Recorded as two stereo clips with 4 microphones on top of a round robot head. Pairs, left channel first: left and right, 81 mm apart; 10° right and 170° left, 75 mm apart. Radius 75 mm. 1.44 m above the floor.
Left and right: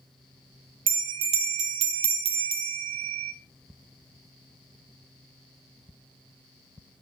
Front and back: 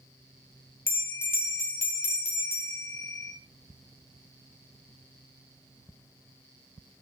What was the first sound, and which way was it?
A bell, 80° right.